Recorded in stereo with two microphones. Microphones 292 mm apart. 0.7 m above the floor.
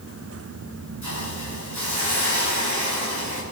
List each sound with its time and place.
1.0 s a hiss: 70° left (ahead or behind), 8 m